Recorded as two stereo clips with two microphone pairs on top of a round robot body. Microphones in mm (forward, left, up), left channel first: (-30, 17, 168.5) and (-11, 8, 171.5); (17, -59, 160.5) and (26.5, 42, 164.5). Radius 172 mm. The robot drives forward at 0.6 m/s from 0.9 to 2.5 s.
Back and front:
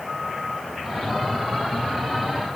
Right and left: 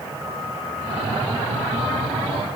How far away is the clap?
I don't hear a clap.